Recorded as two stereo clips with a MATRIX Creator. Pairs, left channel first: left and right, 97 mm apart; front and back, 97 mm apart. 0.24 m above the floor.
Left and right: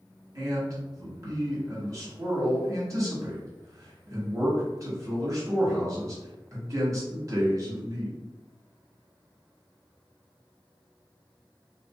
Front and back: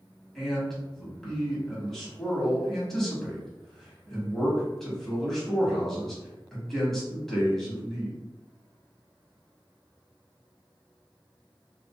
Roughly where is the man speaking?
Right.